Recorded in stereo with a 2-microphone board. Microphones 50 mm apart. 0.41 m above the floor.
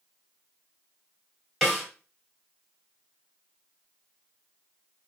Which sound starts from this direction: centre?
A snare drum, at 1.6 s.